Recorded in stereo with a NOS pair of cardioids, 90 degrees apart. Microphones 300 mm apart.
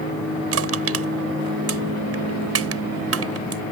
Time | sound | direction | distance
0.5 | crushing | 50° right | ?